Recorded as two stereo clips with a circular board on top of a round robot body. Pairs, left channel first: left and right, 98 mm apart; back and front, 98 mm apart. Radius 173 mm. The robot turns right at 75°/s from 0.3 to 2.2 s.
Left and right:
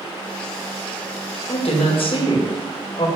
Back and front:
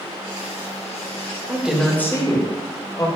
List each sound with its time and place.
1.5 s a woman speaking: 70° left, 1.6 m; by 3.1 s 120° left, 1.6 m